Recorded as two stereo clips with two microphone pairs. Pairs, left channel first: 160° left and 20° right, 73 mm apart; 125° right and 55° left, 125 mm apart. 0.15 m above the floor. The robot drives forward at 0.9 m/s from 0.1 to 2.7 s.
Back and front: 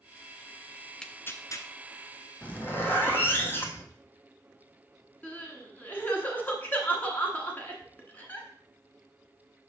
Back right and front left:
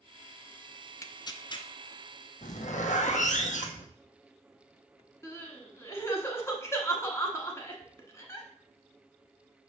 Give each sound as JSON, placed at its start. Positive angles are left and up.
{"t": 1.0, "sound": "tearing paper", "azimuth_deg": -130, "distance_m": 0.5}
{"t": 2.4, "sound": "a zipper", "azimuth_deg": -125, "distance_m": 1.0}
{"t": 5.2, "sound": "crying", "azimuth_deg": -165, "distance_m": 1.3}